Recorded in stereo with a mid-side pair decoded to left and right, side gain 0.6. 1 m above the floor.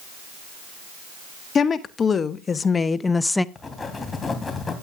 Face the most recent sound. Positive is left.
turn(degrees=25)